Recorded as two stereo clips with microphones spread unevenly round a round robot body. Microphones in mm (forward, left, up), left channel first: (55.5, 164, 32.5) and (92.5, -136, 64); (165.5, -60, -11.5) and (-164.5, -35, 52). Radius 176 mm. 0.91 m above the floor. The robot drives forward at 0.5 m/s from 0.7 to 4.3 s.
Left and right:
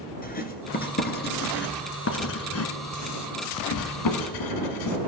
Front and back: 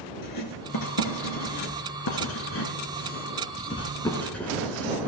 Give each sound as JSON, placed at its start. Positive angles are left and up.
{"t": 0.2, "sound": "writing", "azimuth_deg": 35, "distance_m": 2.5}